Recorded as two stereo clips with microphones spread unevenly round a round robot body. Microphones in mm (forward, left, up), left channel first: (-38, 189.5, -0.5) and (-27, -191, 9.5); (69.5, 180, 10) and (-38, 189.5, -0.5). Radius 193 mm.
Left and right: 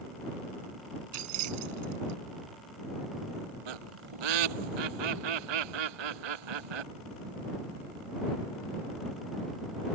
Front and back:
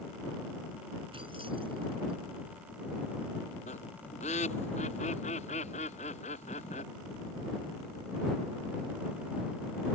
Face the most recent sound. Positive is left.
turn(degrees=-60)